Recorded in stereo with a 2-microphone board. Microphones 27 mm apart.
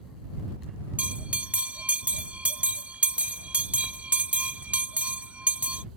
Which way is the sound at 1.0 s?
50° right (ahead or behind).